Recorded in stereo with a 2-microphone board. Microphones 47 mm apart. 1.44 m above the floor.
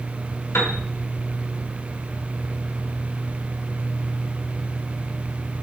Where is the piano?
75° left (ahead or behind), 1.2 m.